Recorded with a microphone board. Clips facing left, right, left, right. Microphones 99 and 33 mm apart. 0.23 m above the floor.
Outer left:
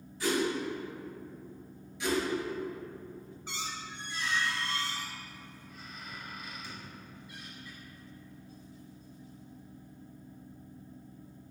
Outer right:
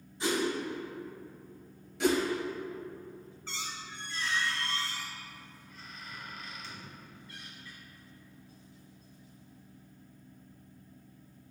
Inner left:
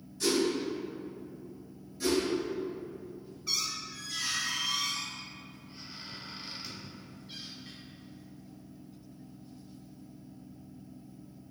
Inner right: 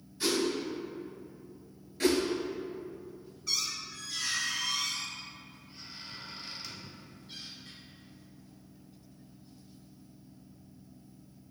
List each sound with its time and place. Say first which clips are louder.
0.2 s a whoosh: outer left 1 dB, inner left 2 dB; 25° right (ahead or behind), 1.3 m
2.0 s a whoosh: outer right 4 dB, inner right 2 dB; 65° right (ahead or behind), 0.6 m
3.5 s a squeak: outer left 2 dB, even; 15° left (ahead or behind), 0.8 m